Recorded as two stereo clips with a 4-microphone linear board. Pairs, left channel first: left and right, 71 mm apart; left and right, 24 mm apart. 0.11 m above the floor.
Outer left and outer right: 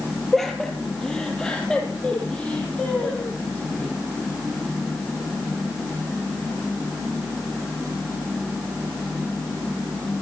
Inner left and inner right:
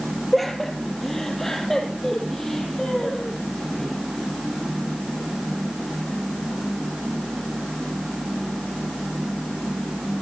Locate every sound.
0.3 s laughter: 5° left (ahead or behind), 2.5 m; by 4.0 s 20° left (ahead or behind), 5 m